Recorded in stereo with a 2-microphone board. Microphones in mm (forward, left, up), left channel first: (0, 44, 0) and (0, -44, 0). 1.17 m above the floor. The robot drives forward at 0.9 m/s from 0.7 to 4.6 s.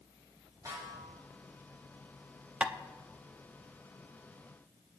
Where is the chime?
I don't hear a chime.